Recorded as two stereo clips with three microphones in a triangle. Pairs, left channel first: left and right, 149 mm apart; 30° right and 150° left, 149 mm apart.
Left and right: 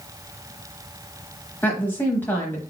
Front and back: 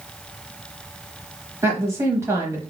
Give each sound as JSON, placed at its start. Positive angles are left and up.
{"t": 1.6, "sound": "a woman speaking", "azimuth_deg": 135, "distance_m": 0.9}